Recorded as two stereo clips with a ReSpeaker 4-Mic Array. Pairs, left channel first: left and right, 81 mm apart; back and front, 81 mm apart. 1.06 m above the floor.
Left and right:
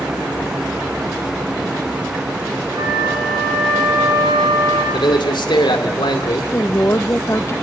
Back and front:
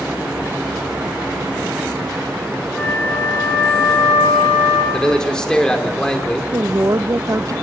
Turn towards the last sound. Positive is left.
turn(degrees=40)